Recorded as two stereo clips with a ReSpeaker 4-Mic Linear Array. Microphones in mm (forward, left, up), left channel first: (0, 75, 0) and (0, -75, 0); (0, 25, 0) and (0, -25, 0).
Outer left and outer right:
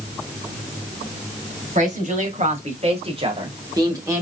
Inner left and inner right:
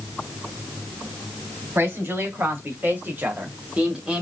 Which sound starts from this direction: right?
A woman speaking, at 1.8 s.